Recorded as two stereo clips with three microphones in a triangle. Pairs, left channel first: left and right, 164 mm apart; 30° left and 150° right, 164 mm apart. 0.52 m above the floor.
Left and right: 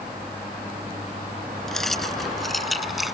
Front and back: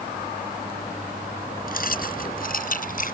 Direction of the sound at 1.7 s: Straight ahead.